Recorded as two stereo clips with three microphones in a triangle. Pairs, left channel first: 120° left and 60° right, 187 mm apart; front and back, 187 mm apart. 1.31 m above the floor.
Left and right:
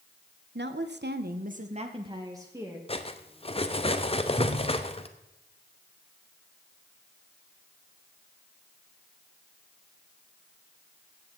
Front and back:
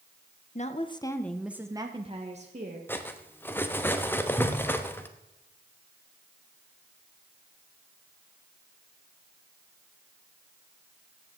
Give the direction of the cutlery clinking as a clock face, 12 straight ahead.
10 o'clock.